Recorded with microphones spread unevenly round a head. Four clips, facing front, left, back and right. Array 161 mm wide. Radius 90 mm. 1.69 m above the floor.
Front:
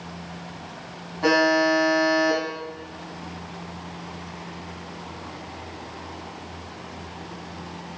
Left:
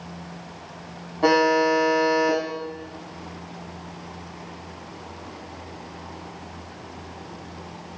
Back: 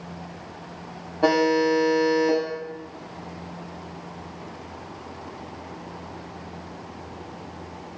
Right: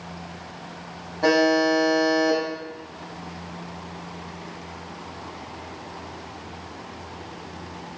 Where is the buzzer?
150° left, 1.3 m.